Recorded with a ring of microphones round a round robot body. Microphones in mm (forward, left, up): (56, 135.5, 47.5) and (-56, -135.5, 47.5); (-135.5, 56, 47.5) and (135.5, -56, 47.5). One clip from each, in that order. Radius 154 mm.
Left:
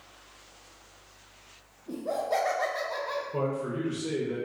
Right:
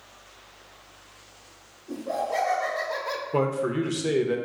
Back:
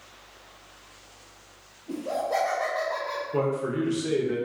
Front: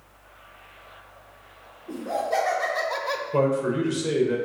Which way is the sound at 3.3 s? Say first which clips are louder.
Right 9 dB, front 4 dB; 100° right.